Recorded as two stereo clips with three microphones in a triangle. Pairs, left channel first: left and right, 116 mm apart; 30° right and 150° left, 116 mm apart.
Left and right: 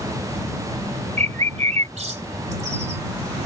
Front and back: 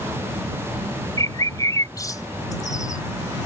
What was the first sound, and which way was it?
A bird, 90° right.